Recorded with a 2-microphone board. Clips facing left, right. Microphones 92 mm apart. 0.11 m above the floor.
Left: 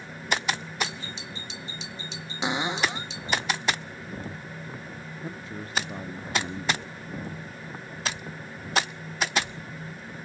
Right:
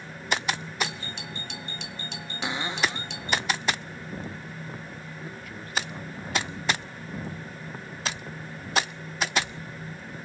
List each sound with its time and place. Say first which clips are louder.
0.8 s a doorbell: right 1 dB; 65° right (ahead or behind)
2.4 s a cupboard door: left 2 dB; 20° left (ahead or behind)
5.2 s a man speaking: left 2 dB; 25° left (ahead or behind)